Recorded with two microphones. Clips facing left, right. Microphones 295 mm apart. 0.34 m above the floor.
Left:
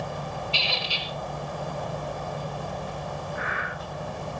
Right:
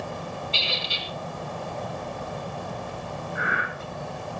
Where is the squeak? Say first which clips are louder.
Even; 20° right (ahead or behind), 2.5 m.